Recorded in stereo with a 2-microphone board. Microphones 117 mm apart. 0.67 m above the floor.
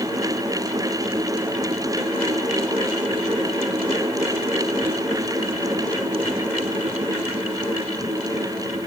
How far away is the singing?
I don't hear singing.